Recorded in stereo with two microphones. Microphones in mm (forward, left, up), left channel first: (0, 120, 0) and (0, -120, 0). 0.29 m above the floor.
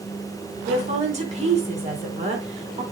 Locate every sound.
0.7 s a woman speaking: 25° right (ahead or behind), 4 m